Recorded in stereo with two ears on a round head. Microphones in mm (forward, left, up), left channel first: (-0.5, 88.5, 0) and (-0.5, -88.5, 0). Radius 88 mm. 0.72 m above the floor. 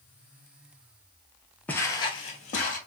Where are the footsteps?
5° left (ahead or behind), 0.7 m; by 2.8 s 45° left (ahead or behind), 1.1 m.